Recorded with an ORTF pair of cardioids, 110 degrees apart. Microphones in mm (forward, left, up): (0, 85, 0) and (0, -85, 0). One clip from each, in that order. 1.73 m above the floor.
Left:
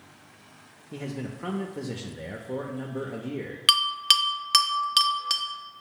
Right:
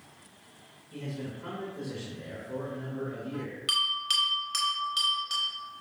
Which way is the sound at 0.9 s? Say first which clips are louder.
Left 3 dB; 50° left.